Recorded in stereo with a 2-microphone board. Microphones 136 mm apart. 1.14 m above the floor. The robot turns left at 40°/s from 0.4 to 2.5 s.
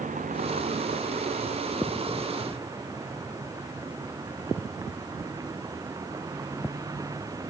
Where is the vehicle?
70° right; by 7.5 s 155° right.